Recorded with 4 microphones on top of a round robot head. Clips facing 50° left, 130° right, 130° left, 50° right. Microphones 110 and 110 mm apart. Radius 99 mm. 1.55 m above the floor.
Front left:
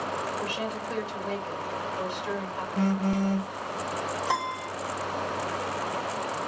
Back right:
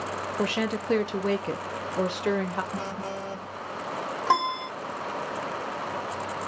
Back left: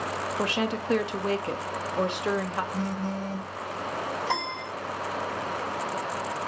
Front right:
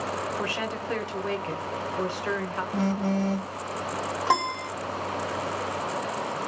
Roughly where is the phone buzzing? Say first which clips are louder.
Front left 7 dB, front right 5 dB; right.